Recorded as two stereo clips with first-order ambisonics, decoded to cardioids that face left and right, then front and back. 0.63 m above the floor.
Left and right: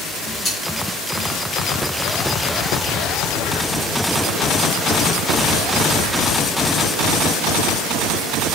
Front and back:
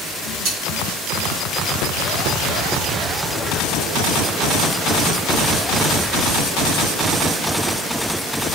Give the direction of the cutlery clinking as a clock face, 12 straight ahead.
7 o'clock.